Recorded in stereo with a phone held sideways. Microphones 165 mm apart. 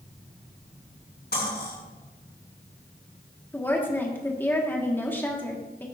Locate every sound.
1.3 s cutlery clinking: 75° left (ahead or behind), 6 m
3.5 s a woman speaking: 15° left (ahead or behind), 1.8 m